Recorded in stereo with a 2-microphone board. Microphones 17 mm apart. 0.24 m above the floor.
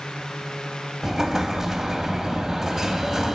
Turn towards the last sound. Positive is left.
turn(degrees=-25)  # may be behind; listen again after turning